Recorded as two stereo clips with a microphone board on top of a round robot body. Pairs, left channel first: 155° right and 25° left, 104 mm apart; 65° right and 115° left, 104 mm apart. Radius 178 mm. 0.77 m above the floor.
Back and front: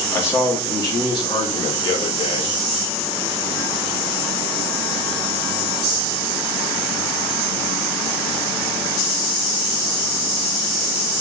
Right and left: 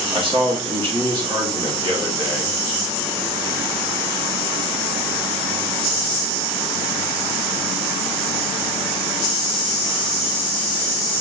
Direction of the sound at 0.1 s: 135° left.